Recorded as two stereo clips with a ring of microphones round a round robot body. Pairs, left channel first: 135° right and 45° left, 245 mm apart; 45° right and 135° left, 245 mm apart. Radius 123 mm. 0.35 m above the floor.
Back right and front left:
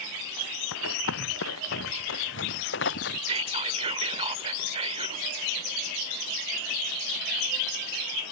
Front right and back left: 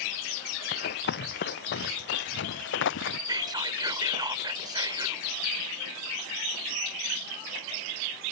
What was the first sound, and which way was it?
Running footsteps, 95° right.